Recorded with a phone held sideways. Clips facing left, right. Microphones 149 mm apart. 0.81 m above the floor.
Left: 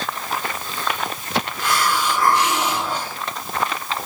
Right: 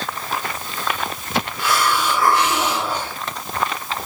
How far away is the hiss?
About 4 m.